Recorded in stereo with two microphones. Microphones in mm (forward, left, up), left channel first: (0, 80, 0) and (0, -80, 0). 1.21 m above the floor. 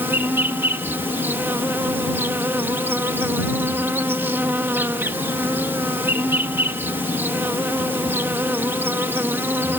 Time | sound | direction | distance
0.0 | an insect | 15° right (ahead or behind) | ?